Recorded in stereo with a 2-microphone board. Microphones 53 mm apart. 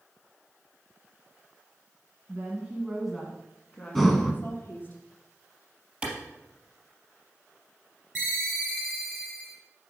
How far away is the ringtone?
About 2.5 m.